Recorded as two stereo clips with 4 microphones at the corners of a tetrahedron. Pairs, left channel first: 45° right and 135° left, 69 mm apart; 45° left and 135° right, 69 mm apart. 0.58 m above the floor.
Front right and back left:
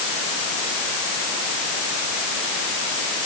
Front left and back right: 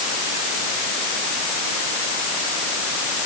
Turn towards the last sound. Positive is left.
No sound to turn to.